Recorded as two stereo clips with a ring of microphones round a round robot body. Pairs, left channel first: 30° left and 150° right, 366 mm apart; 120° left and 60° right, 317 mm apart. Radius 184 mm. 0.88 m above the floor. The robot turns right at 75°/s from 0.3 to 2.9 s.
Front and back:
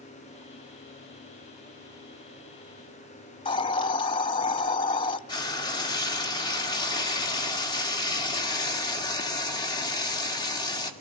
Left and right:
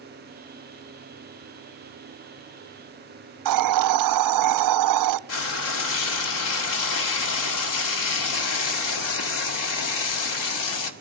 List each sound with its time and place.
3.5 s a hiss: 45° right, 0.5 m
5.3 s frying: 110° left, 1.8 m